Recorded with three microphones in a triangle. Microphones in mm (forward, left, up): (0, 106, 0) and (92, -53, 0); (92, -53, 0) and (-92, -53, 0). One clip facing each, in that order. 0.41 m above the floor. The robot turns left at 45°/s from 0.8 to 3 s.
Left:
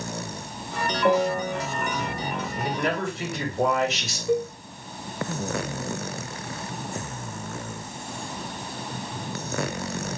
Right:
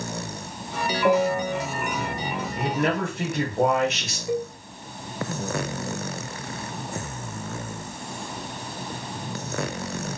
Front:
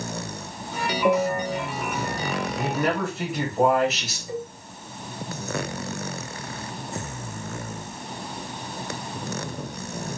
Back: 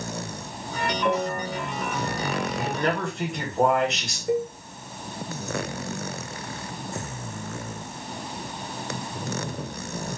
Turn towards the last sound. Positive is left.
turn(degrees=-140)